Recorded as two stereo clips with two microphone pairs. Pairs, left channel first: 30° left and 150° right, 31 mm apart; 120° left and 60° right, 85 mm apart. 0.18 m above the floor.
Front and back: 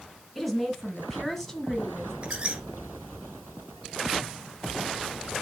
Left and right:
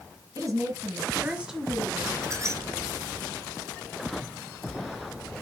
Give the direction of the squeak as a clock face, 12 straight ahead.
3 o'clock.